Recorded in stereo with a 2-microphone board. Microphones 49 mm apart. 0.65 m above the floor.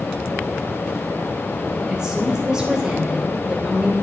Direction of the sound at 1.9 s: 15° right (ahead or behind).